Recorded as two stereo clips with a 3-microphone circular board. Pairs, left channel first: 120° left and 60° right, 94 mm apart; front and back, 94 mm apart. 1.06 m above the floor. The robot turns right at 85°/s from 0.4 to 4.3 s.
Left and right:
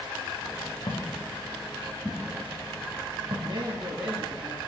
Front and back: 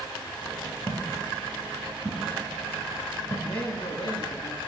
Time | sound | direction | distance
0.9 | footsteps | 125° left | 3 m
3.4 | a man speaking | 40° right | 1.9 m